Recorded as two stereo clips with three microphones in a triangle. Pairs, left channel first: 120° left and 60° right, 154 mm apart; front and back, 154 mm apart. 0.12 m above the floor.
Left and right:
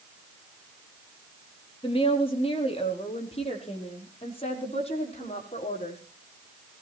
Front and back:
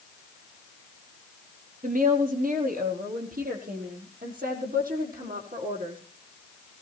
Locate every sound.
1.8 s a woman speaking: 170° left, 3.5 m; by 6.0 s 165° left, 6 m